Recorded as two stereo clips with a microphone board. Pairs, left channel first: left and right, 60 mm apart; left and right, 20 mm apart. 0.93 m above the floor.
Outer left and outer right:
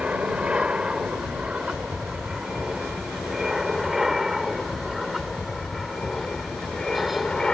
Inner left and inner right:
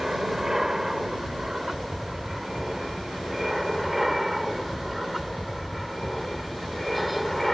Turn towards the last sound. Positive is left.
turn(degrees=10)  # may be behind; listen again after turning